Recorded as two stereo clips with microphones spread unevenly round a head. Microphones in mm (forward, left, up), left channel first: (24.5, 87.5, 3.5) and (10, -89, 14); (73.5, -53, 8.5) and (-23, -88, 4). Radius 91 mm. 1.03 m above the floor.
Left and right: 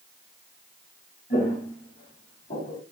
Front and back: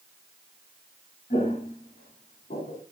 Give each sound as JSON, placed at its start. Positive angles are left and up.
{"t": 1.3, "sound": "footsteps", "azimuth_deg": 45, "distance_m": 4.5}